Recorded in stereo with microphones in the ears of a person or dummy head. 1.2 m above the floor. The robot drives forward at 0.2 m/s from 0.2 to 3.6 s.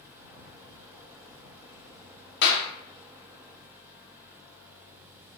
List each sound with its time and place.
2.4 s a clap: 55° left (ahead or behind), 0.6 m; by 2.7 s 60° left (ahead or behind), 0.6 m